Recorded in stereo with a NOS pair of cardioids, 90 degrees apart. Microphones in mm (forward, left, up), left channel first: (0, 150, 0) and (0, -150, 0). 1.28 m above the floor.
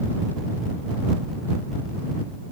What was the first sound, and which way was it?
Only background noise.